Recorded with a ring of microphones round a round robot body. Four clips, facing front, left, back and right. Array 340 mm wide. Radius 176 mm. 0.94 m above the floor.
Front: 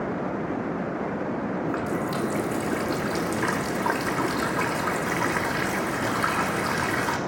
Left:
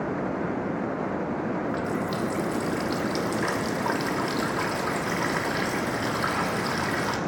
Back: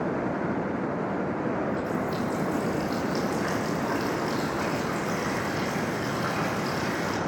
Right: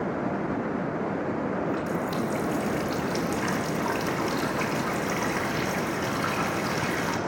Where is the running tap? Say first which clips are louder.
Even, front 1 dB; 15° left, 1.5 m.